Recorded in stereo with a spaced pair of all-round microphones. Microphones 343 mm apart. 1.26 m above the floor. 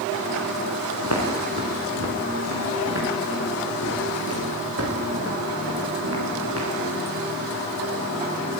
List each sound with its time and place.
1.0 s footsteps: 50° right (ahead or behind), 7.5 m; by 6.7 s 45° right (ahead or behind), 10.5 m